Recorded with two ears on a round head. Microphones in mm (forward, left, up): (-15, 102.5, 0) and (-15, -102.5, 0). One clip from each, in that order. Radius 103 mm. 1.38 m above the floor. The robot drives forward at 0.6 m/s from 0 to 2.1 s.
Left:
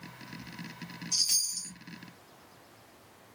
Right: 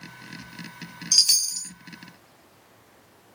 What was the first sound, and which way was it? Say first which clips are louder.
A chime: right 9 dB; 55° right (ahead or behind).